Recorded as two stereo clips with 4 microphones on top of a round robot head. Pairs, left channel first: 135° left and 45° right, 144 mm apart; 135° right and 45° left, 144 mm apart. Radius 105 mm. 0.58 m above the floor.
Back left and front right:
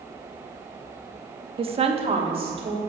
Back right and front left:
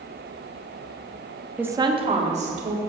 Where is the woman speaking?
35° right, 0.7 m; by 2.8 s 10° left, 2 m.